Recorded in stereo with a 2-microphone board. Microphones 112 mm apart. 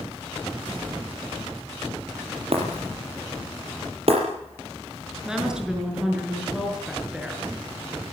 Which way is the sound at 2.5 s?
60° right (ahead or behind).